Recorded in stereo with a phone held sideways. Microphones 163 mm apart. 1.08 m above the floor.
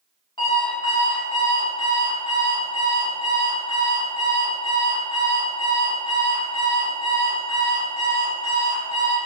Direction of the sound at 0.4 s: 30° left (ahead or behind).